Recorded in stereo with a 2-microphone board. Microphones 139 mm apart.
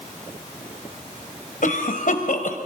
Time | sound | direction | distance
1.6 | a cough | 75° left (ahead or behind) | 2.5 m